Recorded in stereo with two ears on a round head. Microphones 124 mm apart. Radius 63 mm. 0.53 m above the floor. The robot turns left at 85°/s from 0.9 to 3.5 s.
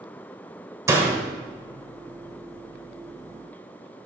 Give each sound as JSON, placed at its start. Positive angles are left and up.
{"t": 0.9, "sound": "a door slam", "side_deg": -20, "distance_m": 1.6}